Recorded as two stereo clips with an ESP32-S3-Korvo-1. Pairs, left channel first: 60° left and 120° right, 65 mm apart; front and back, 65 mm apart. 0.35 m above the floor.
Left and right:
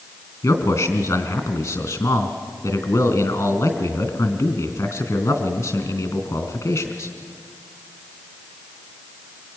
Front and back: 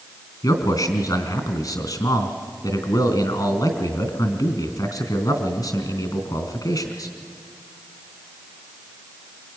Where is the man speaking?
20° left, 3 m.